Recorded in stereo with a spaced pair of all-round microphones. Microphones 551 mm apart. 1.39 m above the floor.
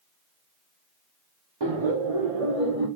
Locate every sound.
1.6 s laughter: 50° right (ahead or behind), 0.7 m; by 2.9 s 80° right, 1.2 m